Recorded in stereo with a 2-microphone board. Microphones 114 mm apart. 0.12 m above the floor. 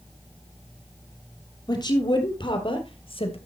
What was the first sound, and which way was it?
A woman speaking, 35° left (ahead or behind).